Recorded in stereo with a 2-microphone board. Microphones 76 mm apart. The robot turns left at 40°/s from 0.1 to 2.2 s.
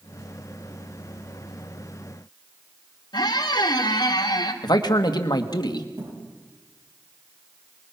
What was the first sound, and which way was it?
A squeak, 60° left (ahead or behind).